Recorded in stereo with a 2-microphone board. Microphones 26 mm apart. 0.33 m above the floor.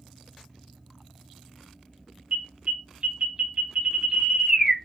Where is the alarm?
45° right (ahead or behind), 2.0 m.